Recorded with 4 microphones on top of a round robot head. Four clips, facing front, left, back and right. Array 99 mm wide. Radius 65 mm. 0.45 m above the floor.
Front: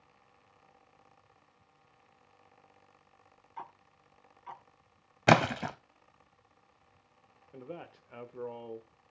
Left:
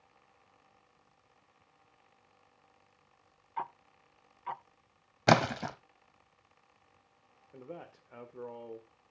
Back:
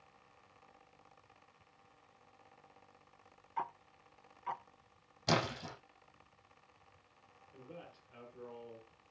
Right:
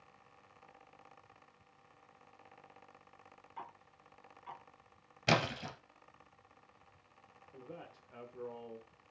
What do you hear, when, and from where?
3.6 s ticking: 120° left, 0.7 m
5.3 s a splash: 40° left, 0.6 m
7.5 s a man speaking: 25° left, 1.1 m